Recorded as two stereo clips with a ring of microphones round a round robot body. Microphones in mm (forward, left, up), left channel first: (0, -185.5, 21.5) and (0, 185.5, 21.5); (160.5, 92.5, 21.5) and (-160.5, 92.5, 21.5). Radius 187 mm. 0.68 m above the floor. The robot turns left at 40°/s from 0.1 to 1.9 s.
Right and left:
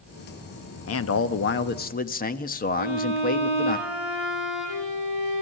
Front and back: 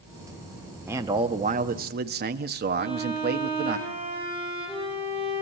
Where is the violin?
80° right, 7.5 m.